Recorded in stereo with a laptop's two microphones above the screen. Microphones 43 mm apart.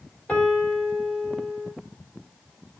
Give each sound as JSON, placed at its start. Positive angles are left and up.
{"t": 0.3, "sound": "a piano", "side_deg": 25, "distance_m": 3.0}